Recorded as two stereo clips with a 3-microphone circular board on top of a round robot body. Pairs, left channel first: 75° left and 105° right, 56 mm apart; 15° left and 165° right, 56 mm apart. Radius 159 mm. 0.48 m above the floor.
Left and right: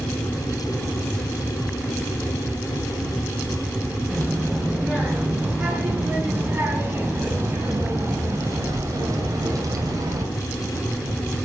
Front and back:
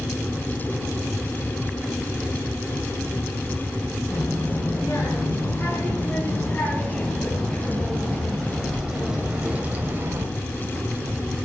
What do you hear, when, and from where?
4.1 s a child speaking: 35° right, 6.5 m; by 10.3 s 110° right, 3 m